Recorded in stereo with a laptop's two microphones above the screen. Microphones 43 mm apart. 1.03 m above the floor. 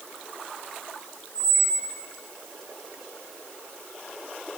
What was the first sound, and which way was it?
A squeak, 30° right (ahead or behind).